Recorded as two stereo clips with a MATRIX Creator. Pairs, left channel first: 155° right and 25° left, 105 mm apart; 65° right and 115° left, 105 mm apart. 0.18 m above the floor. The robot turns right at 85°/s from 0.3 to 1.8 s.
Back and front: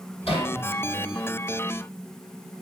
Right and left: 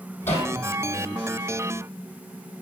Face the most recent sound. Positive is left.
turn(degrees=-10)